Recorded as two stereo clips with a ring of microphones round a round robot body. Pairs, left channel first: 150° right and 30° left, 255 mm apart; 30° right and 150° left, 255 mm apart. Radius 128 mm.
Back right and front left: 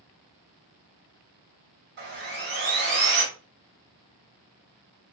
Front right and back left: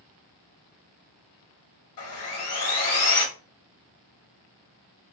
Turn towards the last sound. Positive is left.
turn(degrees=-15)